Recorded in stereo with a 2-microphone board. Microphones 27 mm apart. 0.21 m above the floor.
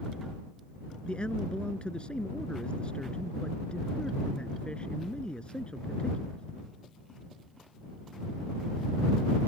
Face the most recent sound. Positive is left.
turn(degrees=45)  # may be behind; listen again after turning